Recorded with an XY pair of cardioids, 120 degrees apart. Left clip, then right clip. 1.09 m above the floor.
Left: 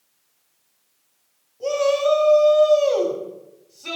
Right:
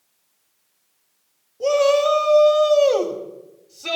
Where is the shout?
45° right, 4 m.